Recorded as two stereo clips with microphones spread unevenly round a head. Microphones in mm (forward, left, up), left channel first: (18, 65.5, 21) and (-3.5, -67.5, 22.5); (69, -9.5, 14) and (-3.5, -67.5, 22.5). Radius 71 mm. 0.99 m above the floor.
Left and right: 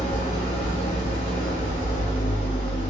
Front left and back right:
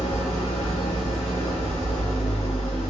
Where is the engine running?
35° left, 1.7 m.